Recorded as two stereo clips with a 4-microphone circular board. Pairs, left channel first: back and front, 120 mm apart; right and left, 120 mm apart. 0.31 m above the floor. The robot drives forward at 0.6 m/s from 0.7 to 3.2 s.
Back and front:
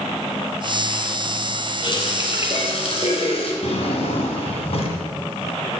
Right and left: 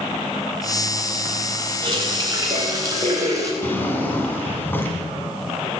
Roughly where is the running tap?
Behind left.